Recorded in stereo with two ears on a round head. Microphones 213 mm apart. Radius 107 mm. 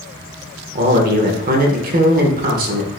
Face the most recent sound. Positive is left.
turn(degrees=-40)  # may be behind; listen again after turning